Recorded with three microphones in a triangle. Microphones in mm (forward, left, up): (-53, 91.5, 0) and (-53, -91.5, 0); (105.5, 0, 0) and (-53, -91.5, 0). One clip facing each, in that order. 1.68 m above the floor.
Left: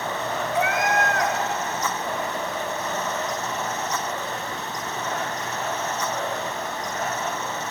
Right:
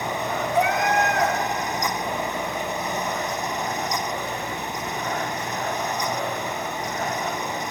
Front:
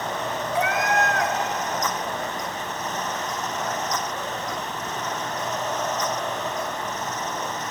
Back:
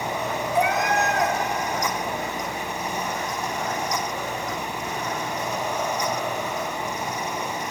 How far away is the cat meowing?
About 1.6 m.